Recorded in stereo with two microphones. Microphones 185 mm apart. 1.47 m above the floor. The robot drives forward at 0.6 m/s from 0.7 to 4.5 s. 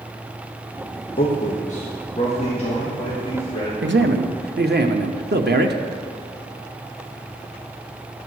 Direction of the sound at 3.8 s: 85° right.